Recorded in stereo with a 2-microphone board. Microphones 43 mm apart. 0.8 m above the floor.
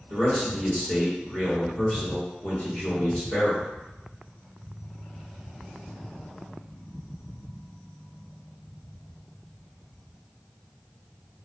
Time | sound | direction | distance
0.1 | a man speaking | 30° left (ahead or behind) | 1.1 m